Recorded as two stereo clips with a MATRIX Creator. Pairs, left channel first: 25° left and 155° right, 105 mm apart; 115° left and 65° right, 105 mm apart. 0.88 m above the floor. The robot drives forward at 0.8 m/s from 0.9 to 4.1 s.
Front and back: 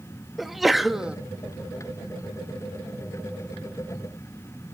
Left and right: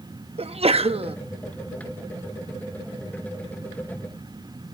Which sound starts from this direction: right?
A sneeze, at 0.4 s.